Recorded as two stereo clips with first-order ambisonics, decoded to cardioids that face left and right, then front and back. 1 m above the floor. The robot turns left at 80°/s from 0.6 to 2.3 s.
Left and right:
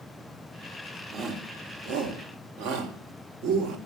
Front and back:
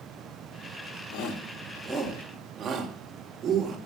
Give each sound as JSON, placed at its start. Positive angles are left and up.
{"t": 1.1, "sound": "a shout", "azimuth_deg": -20, "distance_m": 2.5}